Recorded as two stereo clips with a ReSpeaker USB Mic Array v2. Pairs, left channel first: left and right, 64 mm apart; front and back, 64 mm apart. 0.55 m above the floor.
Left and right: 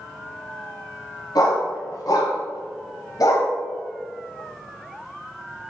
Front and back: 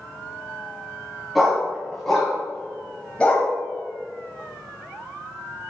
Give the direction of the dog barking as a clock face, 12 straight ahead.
9 o'clock.